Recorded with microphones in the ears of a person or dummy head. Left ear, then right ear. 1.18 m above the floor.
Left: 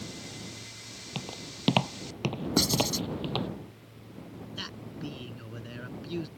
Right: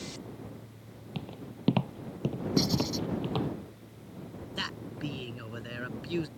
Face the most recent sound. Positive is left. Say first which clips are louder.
# right 4 dB
turn(degrees=-25)  # may be behind; listen again after turning